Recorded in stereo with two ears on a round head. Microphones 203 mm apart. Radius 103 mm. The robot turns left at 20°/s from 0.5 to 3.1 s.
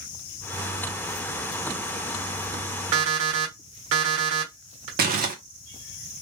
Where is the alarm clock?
70° right (ahead or behind), 1.3 m.